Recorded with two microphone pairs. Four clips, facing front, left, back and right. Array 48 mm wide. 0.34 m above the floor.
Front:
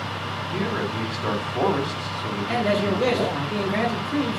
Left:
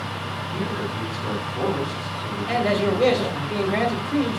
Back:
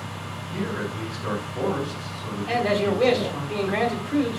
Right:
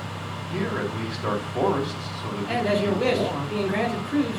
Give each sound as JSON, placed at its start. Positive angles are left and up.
{"t": 0.5, "sound": "a man speaking", "azimuth_deg": -40, "distance_m": 1.7}
{"t": 2.5, "sound": "a man speaking", "azimuth_deg": 130, "distance_m": 1.9}